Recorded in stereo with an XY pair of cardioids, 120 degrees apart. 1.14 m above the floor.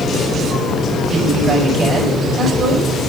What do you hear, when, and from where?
1.1 s a woman speaking: 40° right, 5 m